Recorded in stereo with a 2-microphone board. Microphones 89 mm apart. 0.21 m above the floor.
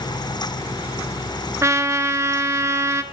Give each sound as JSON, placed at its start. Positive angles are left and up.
{"t": 1.6, "sound": "a trumpet", "side_deg": -35, "distance_m": 0.6}